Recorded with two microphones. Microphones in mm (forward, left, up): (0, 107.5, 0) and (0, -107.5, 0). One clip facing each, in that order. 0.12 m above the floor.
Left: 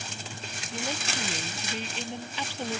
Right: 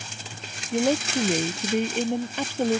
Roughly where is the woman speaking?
Right.